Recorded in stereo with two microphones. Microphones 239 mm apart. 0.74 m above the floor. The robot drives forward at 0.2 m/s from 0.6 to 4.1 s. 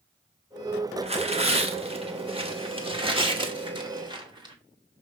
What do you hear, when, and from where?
1.0 s tearing paper: 25° right (ahead or behind), 0.9 m; by 4.5 s 20° right (ahead or behind), 1.2 m